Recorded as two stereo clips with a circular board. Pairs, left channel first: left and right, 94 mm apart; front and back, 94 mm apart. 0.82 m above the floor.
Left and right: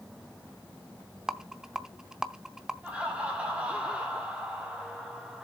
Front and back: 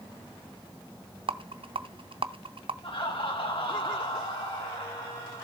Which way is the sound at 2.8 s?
15° right.